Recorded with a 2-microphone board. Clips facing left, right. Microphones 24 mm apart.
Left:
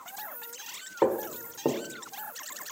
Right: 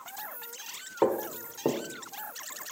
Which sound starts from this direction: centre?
Footsteps, at 1.0 s.